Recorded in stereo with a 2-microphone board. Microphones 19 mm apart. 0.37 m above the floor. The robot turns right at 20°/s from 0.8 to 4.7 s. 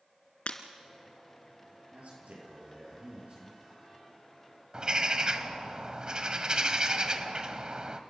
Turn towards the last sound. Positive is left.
turn(degrees=-45)  # may be behind; listen again after turning